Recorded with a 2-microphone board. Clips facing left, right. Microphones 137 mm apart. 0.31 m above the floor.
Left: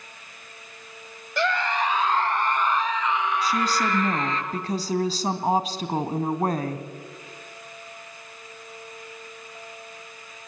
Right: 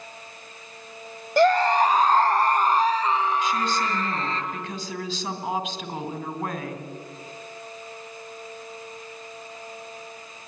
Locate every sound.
1.4 s a scream: 40° right (ahead or behind), 1.3 m; by 4.4 s 35° right (ahead or behind), 4.5 m
3.4 s a woman speaking: 40° left (ahead or behind), 2.5 m